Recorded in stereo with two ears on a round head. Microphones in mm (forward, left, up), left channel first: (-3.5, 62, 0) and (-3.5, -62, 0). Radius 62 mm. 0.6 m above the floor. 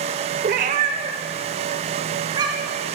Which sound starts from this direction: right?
A cat meowing, at 0.4 s.